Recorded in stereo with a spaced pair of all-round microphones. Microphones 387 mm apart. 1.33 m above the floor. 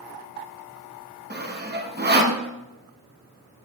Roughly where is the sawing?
Right.